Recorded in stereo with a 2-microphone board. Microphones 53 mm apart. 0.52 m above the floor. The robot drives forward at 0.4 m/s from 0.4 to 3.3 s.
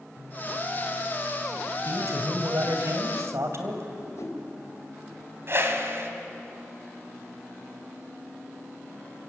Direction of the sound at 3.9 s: 70° left (ahead or behind).